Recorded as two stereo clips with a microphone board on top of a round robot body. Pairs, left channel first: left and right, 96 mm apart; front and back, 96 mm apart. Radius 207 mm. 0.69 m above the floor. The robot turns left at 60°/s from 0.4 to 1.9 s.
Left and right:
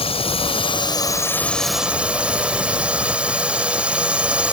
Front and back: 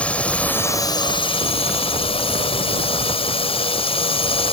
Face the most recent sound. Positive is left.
turn(degrees=-15)